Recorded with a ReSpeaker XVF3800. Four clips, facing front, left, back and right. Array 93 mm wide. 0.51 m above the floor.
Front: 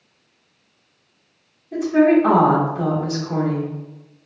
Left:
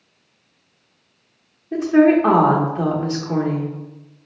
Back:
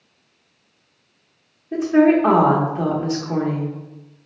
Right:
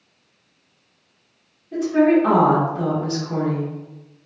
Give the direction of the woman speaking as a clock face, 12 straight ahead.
8 o'clock.